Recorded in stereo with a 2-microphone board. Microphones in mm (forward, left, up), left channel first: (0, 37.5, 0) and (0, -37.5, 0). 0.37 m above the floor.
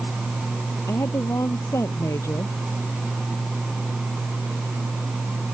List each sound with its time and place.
0.9 s a woman speaking: 40° left (ahead or behind)